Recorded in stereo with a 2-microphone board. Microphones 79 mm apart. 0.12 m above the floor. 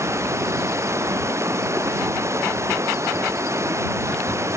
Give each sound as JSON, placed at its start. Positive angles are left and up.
{"t": 0.0, "sound": "running water", "side_deg": -40}